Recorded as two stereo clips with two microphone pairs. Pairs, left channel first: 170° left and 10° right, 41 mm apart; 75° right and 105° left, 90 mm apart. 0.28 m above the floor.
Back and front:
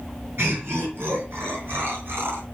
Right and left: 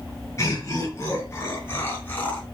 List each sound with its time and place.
0.4 s laughter: 20° right, 5 m; by 2.4 s 5° right, 3 m